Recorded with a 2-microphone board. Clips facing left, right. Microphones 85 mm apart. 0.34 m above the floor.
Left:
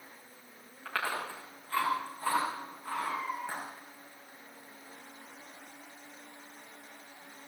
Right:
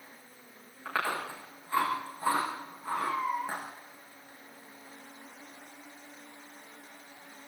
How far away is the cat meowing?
About 2.5 m.